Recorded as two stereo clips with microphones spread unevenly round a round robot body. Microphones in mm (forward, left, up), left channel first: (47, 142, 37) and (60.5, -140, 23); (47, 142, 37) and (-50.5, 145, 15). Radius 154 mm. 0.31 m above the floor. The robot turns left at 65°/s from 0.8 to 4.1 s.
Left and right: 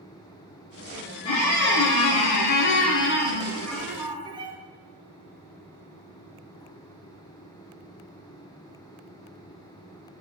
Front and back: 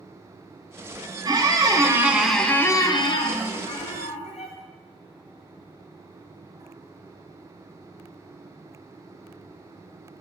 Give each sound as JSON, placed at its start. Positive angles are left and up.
{"t": 1.2, "sound": "a squeak", "azimuth_deg": 165, "distance_m": 0.5}